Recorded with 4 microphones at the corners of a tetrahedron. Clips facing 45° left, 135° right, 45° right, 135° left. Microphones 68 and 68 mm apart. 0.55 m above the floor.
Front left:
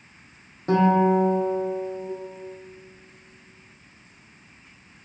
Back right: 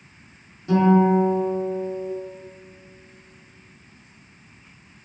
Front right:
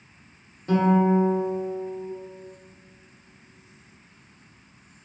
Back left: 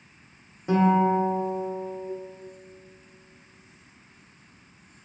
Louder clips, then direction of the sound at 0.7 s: Back right 2 dB, front right 1 dB; 65° left.